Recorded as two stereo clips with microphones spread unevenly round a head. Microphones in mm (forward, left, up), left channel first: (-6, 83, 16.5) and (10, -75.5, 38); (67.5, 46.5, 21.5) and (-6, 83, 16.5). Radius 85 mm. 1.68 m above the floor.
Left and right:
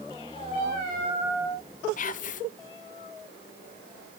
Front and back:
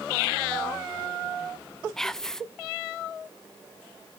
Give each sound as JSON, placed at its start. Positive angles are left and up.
{"t": 2.0, "sound": "whispering", "azimuth_deg": 55, "distance_m": 0.6}